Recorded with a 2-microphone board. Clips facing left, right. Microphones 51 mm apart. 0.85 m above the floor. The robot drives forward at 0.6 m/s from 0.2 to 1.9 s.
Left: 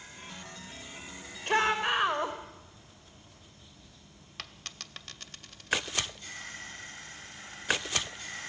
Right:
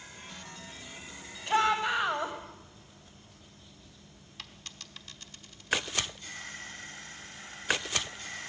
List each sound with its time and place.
1.5 s a shout: 55° left (ahead or behind), 3.5 m
4.4 s a dropped coin: 60° left (ahead or behind), 1.1 m